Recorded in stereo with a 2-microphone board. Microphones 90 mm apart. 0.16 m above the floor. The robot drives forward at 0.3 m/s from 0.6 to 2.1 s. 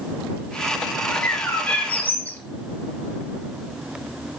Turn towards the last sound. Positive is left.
turn(degrees=20)  # may be behind; listen again after turning